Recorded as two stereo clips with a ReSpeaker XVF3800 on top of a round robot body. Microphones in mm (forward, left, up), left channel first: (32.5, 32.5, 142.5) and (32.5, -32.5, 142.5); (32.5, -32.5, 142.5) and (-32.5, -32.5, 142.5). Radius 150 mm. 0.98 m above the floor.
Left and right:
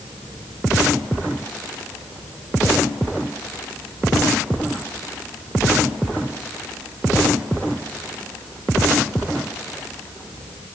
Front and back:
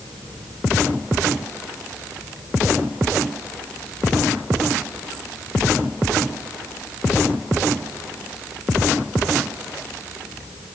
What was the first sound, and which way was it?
Only background noise.